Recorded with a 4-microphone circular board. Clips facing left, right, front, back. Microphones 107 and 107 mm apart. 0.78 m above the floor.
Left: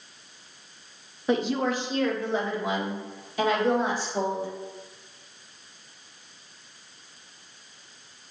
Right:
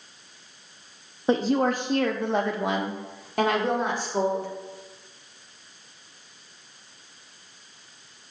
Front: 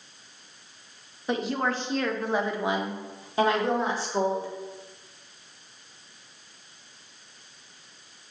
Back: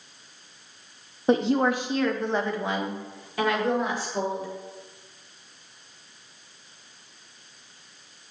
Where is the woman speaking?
140° right, 0.7 m; by 4.5 s 55° right, 2.5 m.